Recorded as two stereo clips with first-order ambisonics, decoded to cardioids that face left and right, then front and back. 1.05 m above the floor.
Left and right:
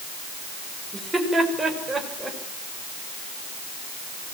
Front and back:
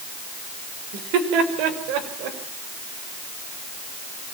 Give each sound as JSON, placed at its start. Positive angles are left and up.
{"t": 0.9, "sound": "laughter", "azimuth_deg": -175, "distance_m": 5.0}